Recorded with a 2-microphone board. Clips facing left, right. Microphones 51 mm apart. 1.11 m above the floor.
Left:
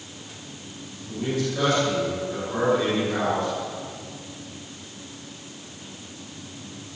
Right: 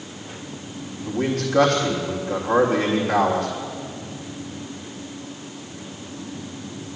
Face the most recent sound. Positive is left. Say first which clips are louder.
# right 3 dB
turn(degrees=-65)  # may be behind; listen again after turning